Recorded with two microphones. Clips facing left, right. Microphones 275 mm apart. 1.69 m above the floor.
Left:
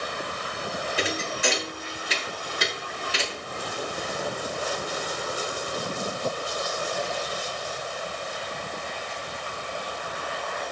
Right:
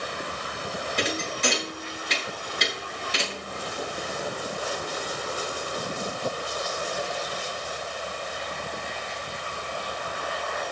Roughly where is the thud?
Centre.